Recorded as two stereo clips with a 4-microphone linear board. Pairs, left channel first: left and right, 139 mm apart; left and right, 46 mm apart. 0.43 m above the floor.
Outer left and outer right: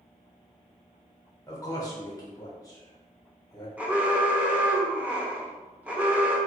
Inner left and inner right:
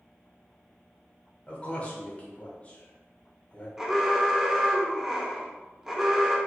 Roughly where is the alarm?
Centre.